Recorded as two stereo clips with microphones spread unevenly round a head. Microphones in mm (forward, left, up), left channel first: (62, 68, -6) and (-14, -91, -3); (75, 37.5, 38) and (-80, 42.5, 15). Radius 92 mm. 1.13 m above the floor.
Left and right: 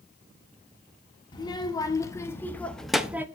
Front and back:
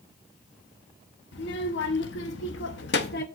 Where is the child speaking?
Straight ahead, 1.7 m; by 3.3 s 40° right, 0.7 m.